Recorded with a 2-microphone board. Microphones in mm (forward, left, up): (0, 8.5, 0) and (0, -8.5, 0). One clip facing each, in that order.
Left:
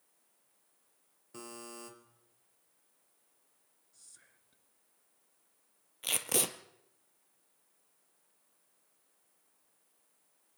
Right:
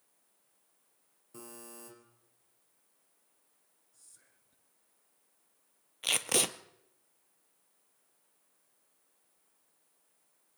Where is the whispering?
30° left (ahead or behind), 1.6 m.